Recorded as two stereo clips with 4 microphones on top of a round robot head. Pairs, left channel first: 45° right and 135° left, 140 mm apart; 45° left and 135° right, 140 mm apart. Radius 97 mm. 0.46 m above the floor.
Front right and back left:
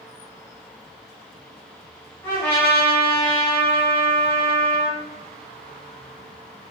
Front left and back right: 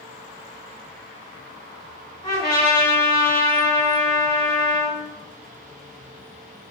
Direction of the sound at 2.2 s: 20° left.